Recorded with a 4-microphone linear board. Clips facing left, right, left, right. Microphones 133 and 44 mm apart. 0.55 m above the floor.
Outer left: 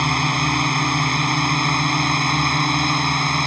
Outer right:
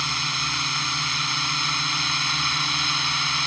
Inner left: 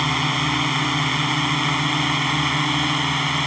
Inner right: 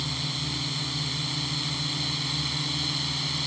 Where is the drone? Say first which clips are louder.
Outer left 11 dB, inner left 12 dB; 55° left (ahead or behind); by 3.5 s 50° left (ahead or behind).